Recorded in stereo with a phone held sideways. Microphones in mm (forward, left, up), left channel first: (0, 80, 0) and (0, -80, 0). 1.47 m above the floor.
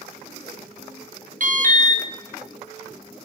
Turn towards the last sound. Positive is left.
turn(degrees=-55)  # may be behind; listen again after turning